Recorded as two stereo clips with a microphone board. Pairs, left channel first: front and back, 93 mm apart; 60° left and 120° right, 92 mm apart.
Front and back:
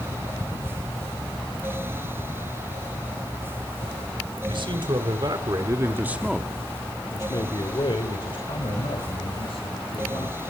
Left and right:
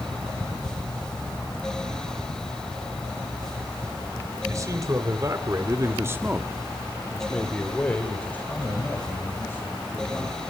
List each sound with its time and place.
4.5 s a man speaking: 170° right, 3 m; by 10.4 s 5° right, 5.5 m